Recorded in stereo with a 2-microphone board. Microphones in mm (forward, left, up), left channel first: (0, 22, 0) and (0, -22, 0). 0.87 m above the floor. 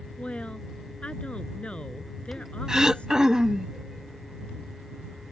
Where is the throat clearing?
15° right (ahead or behind).